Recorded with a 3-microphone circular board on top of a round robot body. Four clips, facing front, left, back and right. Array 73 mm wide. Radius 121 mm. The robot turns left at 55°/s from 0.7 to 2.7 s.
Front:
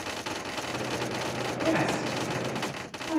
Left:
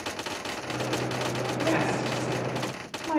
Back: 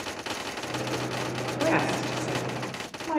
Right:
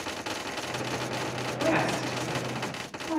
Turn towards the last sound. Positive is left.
turn(degrees=130)